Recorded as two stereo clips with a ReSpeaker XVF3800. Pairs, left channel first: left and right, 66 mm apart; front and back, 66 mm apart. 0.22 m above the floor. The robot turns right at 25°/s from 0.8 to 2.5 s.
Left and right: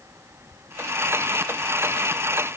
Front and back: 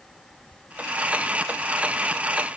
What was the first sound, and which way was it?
Only background noise.